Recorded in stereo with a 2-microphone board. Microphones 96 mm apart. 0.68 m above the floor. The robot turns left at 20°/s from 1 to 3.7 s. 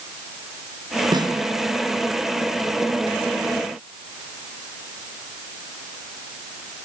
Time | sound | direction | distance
1.1 | a snare drum | 45° right (ahead or behind) | 4 m